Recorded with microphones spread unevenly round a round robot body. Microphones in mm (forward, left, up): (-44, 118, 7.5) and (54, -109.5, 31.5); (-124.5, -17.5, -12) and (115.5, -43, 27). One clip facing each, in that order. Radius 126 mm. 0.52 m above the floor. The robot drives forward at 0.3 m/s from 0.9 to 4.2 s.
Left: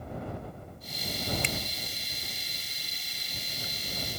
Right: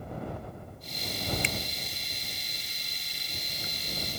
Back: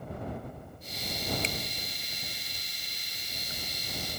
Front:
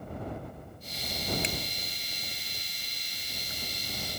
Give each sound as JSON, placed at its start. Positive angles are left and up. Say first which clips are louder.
{"t": 1.4, "sound": "a finger snap", "louder": "left 1 dB, front 1 dB", "azimuth_deg": 75}